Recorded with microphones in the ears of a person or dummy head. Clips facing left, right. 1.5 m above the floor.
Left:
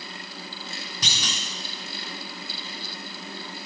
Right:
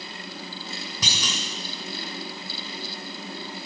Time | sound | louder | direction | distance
1.0 | a clunk | right 3 dB | 45° right (ahead or behind) | 1.8 m